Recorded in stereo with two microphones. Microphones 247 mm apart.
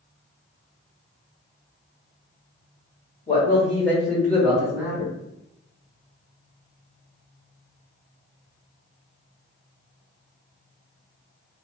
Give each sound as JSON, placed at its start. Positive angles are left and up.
{"t": 3.3, "sound": "a man speaking", "side_deg": 25, "distance_m": 1.6}